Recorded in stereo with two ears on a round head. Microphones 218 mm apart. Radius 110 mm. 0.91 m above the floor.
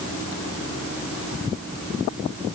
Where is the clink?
No clink in this recording.